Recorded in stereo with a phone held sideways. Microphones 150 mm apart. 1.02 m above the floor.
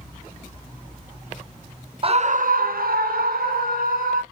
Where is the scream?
40° right (ahead or behind), 0.5 m; by 4.2 s 70° right (ahead or behind), 1.7 m.